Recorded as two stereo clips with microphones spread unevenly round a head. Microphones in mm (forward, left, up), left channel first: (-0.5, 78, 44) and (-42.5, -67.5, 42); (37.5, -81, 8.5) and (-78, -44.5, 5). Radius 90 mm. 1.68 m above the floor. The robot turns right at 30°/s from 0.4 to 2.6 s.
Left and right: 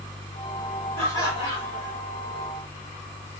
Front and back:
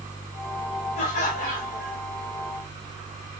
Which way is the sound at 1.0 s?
Straight ahead.